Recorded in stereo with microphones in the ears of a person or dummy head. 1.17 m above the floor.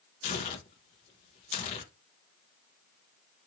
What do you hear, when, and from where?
0.2 s tearing paper: 35° left (ahead or behind), 0.7 m